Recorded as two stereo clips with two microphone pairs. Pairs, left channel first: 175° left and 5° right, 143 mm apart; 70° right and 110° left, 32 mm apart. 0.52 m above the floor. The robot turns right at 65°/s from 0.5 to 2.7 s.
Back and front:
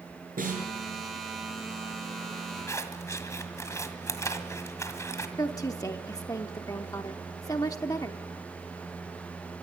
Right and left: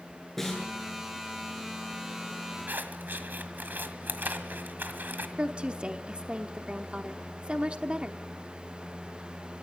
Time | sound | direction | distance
0.4 | a snare drum | 10° left | 7.5 m
2.7 | scissors | 100° left | 1.8 m
5.4 | a woman speaking | 125° left | 0.8 m